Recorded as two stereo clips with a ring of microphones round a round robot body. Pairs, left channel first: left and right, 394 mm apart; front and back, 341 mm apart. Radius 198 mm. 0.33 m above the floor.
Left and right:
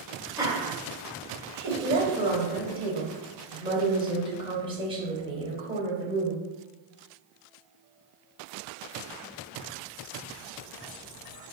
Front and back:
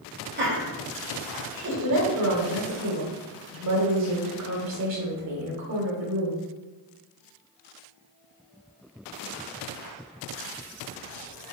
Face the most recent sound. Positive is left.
turn(degrees=-165)